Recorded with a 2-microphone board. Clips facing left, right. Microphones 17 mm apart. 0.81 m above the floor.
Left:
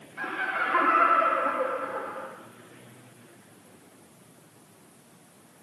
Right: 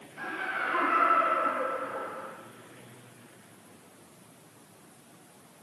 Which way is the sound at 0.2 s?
20° left (ahead or behind).